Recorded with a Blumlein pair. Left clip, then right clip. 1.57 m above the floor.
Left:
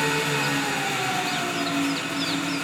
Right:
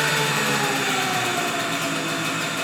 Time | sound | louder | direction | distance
0.0 | an engine running | right 2 dB | 30° right | 1.3 m